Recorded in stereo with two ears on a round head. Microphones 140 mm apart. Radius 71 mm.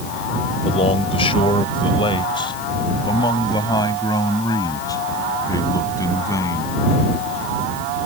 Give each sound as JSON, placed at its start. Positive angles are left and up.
{"t": 0.7, "sound": "a man speaking", "side_deg": 40}